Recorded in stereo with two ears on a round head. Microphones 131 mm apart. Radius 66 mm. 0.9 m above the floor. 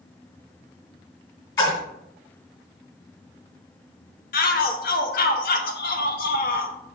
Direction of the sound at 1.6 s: 30° left (ahead or behind).